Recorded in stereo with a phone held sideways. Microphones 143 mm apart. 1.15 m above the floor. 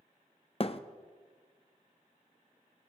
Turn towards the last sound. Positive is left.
turn(degrees=45)  # may be behind; listen again after turning